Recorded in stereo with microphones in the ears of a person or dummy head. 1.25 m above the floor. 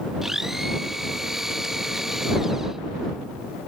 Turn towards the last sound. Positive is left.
turn(degrees=0)  # may be behind; listen again after turning